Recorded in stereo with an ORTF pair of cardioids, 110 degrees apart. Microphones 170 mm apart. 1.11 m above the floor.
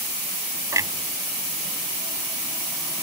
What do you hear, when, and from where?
0.7 s a clunk: 20° right